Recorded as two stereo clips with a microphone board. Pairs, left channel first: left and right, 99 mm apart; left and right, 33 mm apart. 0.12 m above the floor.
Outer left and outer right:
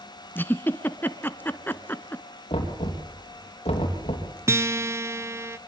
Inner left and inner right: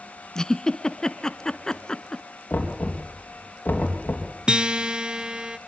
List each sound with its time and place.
0.3 s a giggle: 20° left (ahead or behind), 0.9 m
2.5 s knocking: 65° left (ahead or behind), 3.5 m
4.5 s a guitar: 25° right (ahead or behind), 0.5 m